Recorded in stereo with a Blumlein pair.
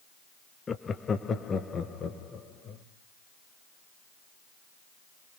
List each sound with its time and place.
0.7 s laughter: 15° left, 0.7 m; by 2.8 s 20° left, 3 m